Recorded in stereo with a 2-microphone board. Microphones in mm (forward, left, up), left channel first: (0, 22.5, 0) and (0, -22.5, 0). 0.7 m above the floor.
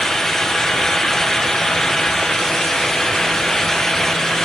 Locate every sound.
Only background noise.